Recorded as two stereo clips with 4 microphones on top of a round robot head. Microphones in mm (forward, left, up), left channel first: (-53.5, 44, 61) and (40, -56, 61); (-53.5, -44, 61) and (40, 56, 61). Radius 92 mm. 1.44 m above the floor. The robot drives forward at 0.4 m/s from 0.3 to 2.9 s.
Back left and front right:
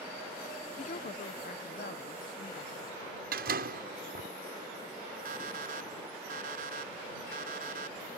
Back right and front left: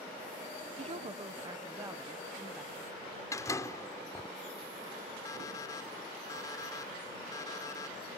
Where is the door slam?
60° right.